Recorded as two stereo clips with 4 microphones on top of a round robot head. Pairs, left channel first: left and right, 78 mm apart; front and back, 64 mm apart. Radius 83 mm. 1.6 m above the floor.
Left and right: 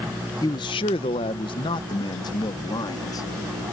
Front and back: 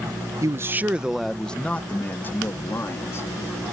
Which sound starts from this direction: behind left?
A man speaking, at 0.4 s.